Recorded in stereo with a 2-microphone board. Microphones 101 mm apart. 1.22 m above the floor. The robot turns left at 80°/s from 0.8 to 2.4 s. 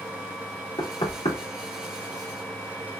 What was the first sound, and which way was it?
Knocking, 45° left (ahead or behind).